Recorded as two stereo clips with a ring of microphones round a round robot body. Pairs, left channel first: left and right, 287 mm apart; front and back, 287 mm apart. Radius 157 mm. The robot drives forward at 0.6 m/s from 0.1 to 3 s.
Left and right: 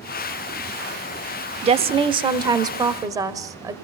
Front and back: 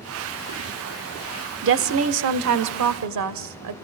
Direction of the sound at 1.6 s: 150° right.